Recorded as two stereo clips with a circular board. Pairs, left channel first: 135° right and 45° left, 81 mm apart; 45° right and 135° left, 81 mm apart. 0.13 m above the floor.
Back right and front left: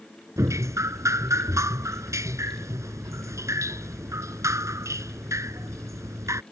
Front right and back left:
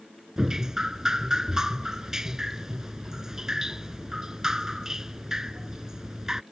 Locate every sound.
0.4 s dripping: 55° left